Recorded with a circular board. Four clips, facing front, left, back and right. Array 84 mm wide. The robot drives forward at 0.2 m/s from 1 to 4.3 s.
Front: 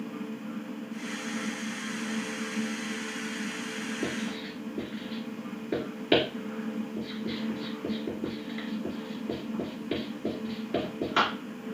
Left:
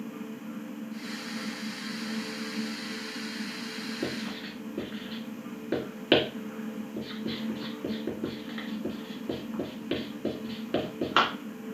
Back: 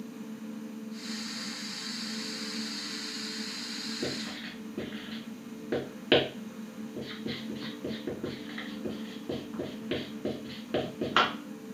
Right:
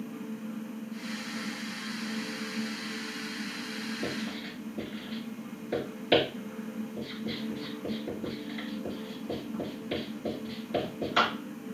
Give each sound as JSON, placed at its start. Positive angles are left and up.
{"t": 4.0, "sound": "writing", "azimuth_deg": 115, "distance_m": 2.0}